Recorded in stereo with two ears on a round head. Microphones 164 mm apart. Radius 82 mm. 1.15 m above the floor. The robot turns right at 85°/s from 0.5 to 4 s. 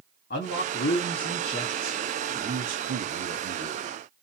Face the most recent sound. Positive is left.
turn(degrees=-10)